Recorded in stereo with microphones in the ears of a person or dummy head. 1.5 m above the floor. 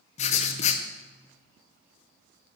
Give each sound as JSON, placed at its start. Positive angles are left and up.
{"t": 0.2, "sound": "writing", "side_deg": 40, "distance_m": 0.7}